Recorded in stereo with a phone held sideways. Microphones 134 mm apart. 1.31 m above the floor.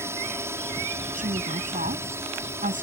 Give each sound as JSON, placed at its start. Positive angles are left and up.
{"t": 0.0, "sound": "a drone", "side_deg": -20}
{"t": 1.1, "sound": "a woman speaking", "side_deg": -85}